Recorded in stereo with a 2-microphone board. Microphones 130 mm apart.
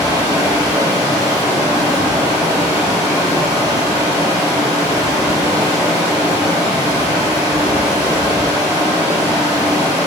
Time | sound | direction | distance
0.0 | running water | 30° right (ahead or behind) | 1.3 m